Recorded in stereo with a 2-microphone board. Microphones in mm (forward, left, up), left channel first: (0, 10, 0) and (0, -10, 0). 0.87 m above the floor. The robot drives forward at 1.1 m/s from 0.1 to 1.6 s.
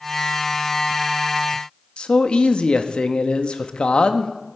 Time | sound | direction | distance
2.0 | a man speaking | 60° left (ahead or behind) | 0.8 m